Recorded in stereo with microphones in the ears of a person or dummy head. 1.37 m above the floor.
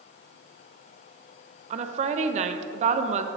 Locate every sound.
1.7 s a woman speaking: 40° right (ahead or behind), 0.7 m